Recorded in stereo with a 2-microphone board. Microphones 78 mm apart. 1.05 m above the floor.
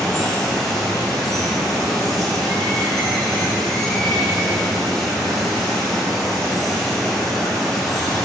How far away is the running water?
About 3 m.